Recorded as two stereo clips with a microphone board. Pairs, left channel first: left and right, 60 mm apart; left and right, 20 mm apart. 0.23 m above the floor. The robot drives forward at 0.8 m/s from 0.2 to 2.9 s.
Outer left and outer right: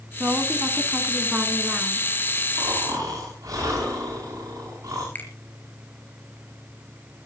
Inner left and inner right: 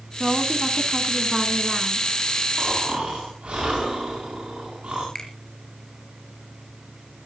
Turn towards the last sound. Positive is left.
turn(degrees=30)  # may be behind; listen again after turning